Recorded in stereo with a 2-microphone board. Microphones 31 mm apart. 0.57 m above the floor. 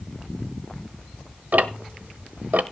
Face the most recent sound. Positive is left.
turn(degrees=-60)  # may be behind; listen again after turning